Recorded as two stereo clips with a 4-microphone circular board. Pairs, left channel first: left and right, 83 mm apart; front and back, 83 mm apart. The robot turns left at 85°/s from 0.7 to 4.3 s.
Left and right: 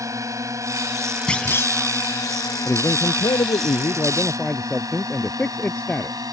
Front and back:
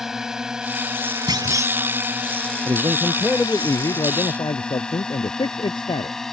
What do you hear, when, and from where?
0.0 s a drone: 100° right; by 6.3 s 85° right
1.3 s a clunk: 170° left; by 1.8 s 130° left
2.6 s a man speaking: 155° left; by 6.2 s 15° left